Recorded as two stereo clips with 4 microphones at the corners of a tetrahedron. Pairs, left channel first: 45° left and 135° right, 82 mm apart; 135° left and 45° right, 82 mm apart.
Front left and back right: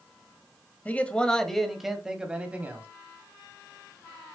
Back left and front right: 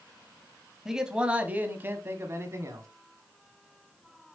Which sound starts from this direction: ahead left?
A man speaking, at 0.8 s.